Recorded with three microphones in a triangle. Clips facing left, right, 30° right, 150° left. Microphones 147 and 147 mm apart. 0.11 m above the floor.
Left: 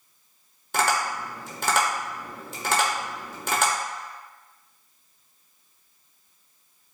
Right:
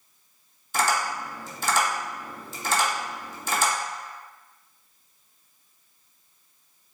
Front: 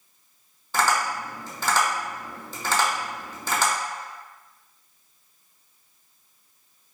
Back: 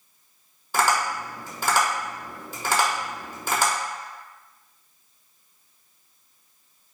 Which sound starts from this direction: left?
Tapping, at 0.7 s.